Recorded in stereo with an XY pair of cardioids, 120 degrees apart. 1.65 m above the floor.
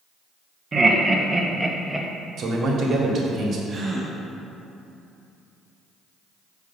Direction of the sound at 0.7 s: 30° right.